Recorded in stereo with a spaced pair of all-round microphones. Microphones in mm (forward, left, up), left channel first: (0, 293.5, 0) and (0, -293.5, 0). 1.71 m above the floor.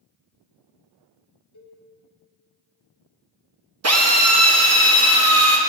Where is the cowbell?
40° left (ahead or behind), 2.5 m.